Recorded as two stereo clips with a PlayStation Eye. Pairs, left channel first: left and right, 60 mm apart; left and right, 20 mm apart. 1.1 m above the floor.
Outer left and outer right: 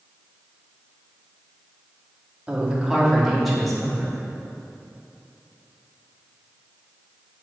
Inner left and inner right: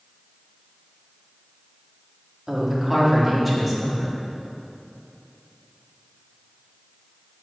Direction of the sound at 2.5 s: 20° right (ahead or behind).